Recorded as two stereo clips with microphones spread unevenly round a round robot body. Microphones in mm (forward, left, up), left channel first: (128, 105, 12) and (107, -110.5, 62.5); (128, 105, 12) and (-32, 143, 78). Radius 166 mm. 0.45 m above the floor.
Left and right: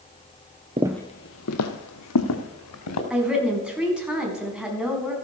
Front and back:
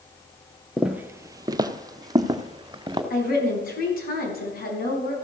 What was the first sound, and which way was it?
Footsteps, 130° right.